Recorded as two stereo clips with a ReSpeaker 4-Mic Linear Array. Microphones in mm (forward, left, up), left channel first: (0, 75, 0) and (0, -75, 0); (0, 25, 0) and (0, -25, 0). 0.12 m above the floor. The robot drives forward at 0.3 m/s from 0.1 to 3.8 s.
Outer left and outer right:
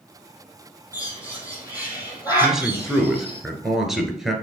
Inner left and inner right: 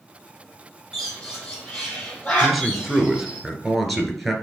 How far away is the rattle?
No rattle in this recording.